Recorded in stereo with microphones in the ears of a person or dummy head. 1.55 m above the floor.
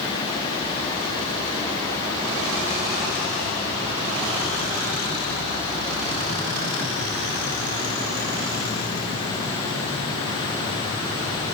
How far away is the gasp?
I don't hear a gasp.